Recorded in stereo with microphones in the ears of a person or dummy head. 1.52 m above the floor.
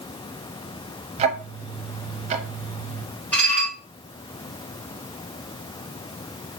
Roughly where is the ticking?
Right.